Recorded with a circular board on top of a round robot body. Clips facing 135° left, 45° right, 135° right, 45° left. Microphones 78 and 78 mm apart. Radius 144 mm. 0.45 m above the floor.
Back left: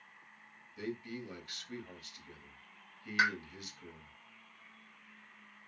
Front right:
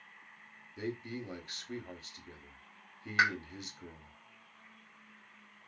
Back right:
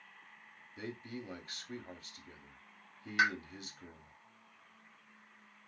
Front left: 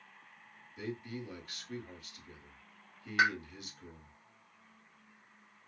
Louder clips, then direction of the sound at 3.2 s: Front right 2 dB, front left 2 dB; 5° left.